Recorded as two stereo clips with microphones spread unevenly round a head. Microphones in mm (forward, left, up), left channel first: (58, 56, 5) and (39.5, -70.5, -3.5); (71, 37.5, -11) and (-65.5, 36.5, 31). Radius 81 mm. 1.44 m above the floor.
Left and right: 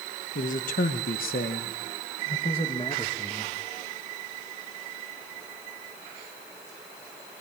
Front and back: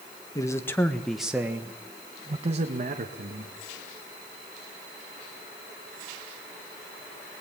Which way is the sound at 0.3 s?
65° left.